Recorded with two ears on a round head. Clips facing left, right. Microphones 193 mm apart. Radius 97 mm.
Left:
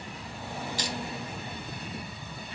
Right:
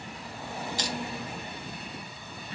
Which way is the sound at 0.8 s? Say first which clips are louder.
Right 2 dB; 70° left (ahead or behind).